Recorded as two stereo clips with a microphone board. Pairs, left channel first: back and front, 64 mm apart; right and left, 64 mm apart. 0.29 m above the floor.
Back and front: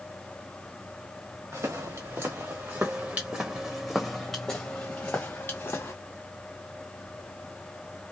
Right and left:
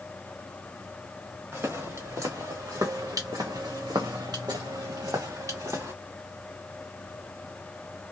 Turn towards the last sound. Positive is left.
turn(degrees=130)